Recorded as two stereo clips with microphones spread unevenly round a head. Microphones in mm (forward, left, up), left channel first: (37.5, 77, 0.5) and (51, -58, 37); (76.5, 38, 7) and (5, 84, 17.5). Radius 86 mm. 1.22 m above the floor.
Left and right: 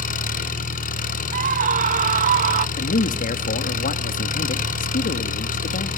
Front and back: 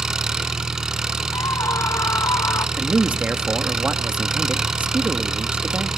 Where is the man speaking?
75° left, 1.6 m.